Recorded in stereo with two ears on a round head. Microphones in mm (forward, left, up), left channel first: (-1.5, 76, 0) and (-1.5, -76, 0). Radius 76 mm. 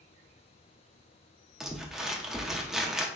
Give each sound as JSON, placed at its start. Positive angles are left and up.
{"t": 1.6, "sound": "crumpling", "side_deg": -5, "distance_m": 0.5}